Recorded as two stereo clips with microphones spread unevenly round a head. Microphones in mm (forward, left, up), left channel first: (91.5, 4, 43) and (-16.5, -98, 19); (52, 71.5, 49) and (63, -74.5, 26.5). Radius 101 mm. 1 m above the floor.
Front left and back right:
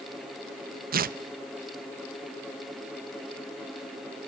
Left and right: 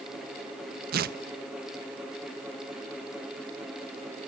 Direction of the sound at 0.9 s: 110° right.